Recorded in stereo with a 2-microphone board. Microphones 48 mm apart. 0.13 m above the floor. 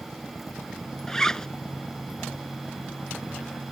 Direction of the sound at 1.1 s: 10° left (ahead or behind).